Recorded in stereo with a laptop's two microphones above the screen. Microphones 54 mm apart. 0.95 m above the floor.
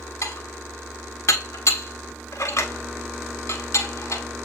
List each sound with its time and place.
0.2 s dishes clattering: 60° left (ahead or behind), 1.6 m